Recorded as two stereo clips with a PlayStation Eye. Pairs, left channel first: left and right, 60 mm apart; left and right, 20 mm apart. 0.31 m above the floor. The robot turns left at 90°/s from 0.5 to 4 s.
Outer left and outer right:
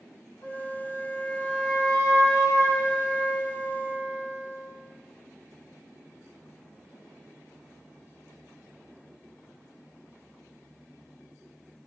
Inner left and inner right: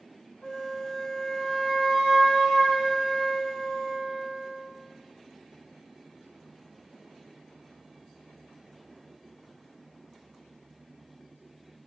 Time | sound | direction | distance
0.4 | a flute | 85° left | 1.0 m